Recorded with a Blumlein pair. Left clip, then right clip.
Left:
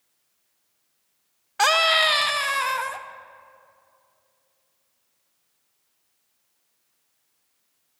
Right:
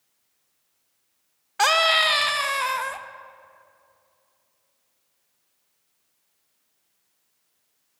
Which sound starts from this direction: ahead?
A scream, at 1.6 s.